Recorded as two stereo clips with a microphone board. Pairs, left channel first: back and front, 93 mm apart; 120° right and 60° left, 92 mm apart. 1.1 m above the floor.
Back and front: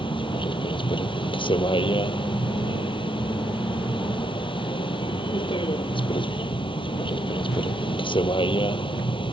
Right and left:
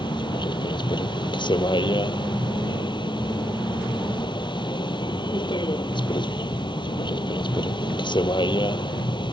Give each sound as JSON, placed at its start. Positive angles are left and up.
{"t": 0.0, "sound": "a vehicle", "azimuth_deg": -155}